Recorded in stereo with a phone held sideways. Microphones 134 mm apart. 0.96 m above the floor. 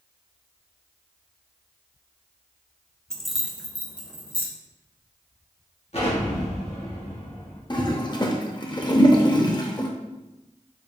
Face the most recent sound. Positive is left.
turn(degrees=35)  # may be behind; listen again after turning